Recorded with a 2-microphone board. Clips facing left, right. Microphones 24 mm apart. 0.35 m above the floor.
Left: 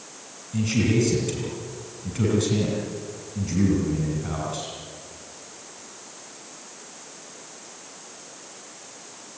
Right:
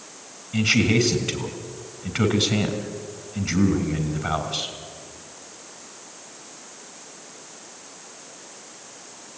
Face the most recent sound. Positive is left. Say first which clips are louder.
# right 3 dB
turn(degrees=-40)  # may be behind; listen again after turning